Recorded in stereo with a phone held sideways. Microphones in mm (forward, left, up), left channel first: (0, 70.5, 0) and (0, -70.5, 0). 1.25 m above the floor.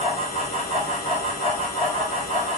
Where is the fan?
50° left (ahead or behind), 2 m.